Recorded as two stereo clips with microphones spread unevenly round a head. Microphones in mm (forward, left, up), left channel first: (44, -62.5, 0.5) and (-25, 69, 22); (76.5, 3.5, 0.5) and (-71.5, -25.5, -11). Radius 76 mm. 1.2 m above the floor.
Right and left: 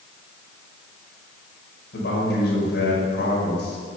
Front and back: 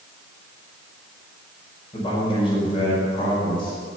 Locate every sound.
1.9 s a man speaking: 45° right, 5.5 m